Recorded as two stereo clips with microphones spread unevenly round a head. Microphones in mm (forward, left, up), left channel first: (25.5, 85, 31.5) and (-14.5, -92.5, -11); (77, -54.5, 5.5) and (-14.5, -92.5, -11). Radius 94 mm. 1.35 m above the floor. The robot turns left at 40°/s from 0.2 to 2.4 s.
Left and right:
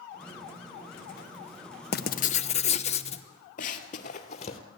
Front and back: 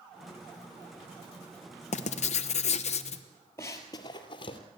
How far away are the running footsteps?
About 2 m.